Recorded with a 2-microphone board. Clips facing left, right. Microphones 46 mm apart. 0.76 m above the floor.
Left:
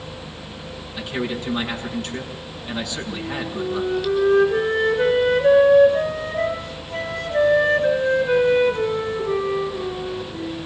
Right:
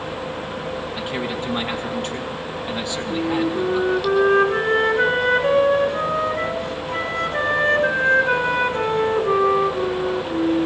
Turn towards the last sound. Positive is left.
turn(degrees=-60)  # may be behind; listen again after turning